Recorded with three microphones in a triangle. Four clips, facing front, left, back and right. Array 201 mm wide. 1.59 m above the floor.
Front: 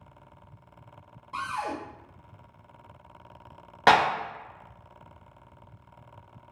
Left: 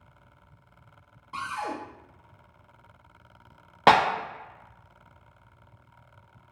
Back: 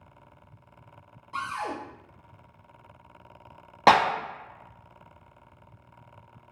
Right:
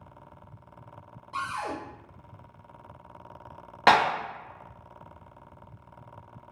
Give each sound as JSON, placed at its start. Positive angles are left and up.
{"t": 1.3, "sound": "a cupboard door", "azimuth_deg": 50, "distance_m": 1.0}
{"t": 3.9, "sound": "a clap", "azimuth_deg": 135, "distance_m": 0.7}